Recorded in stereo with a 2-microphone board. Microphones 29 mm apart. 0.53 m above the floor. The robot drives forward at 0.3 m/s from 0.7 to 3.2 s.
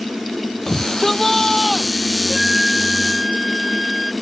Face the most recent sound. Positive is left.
turn(degrees=-15)  # may be behind; listen again after turning